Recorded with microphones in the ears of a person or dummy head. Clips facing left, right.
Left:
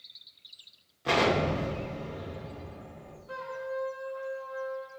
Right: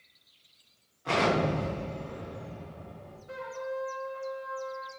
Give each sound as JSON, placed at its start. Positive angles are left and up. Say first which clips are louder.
{"t": 1.1, "sound": "an explosion", "louder": "left 1 dB", "side_deg": 30, "distance_m": 1.0}
{"t": 3.3, "sound": "a trumpet", "louder": "even", "side_deg": -25, "distance_m": 1.0}